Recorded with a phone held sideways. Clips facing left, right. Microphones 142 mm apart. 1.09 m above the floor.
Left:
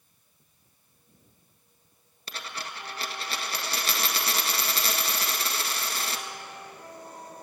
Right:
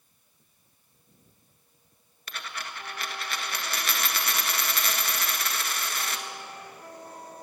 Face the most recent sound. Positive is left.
turn(degrees=30)  # may be behind; listen again after turning